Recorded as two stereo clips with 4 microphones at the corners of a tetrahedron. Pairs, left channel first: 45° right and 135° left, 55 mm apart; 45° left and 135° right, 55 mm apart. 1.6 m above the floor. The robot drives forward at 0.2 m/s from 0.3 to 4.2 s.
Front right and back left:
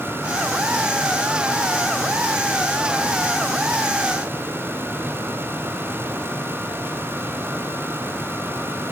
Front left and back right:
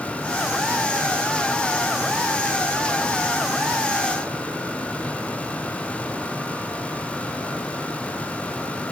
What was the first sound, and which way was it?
Only background noise.